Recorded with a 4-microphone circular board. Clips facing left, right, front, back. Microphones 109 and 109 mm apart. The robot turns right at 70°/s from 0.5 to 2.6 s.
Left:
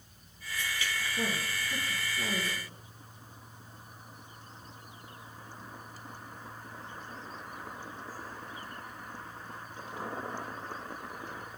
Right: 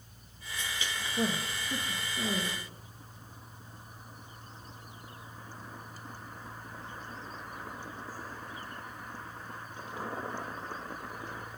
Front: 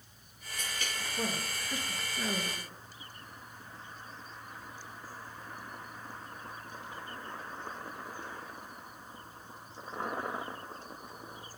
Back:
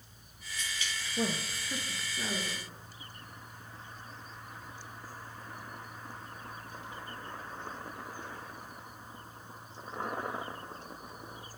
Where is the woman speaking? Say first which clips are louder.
Right 5 dB, back 3 dB; 165° right, 3 m; by 2.6 s 65° right, 3 m.